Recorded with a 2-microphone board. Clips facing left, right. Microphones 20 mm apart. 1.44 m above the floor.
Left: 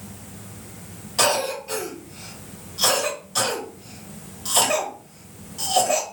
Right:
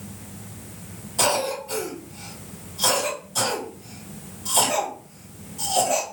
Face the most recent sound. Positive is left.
turn(degrees=40)  # may be behind; listen again after turning